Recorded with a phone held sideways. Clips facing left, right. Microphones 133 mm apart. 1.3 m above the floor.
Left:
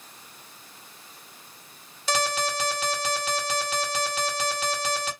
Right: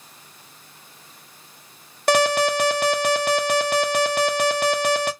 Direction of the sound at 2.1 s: 60° right (ahead or behind).